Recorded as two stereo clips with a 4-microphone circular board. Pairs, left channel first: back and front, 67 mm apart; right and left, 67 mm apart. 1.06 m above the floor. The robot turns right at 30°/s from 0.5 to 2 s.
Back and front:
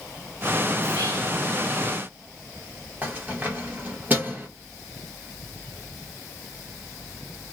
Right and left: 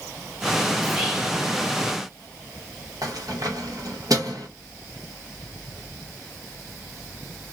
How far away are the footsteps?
No footsteps in this recording.